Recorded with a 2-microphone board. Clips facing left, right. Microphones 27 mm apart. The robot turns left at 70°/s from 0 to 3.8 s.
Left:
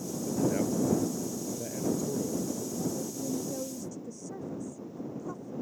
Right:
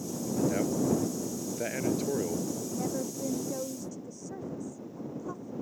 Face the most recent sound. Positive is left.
turn(degrees=-170)